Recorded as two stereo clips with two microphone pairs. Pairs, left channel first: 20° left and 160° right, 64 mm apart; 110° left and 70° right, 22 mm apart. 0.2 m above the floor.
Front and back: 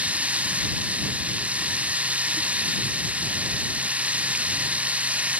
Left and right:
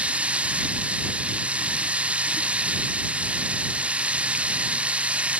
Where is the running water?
90° right.